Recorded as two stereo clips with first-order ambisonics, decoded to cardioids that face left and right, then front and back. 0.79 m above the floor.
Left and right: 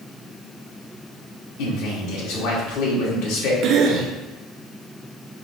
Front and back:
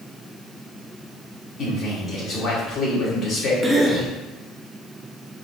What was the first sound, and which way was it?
A man speaking, 60° left.